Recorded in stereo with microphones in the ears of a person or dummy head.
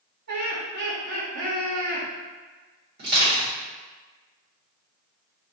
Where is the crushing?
55° right (ahead or behind), 1.9 m.